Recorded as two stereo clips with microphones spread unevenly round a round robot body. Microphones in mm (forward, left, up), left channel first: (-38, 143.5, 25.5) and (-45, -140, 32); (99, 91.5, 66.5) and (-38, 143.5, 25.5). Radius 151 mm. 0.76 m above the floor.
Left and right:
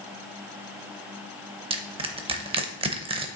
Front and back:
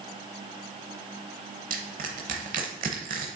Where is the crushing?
150° right, 0.6 m.